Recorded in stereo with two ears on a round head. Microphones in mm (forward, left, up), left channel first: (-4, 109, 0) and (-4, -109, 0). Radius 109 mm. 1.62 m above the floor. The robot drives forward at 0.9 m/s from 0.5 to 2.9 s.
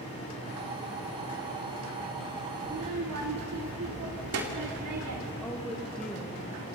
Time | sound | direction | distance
2.6 | a child speaking | 70° right (ahead or behind) | 2.5 m
5.4 | a woman speaking | 5° left (ahead or behind) | 2.5 m